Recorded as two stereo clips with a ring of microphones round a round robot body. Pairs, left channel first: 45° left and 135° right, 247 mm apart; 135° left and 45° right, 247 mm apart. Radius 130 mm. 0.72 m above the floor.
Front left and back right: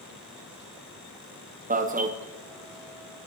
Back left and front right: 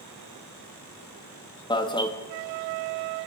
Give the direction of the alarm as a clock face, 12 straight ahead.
5 o'clock.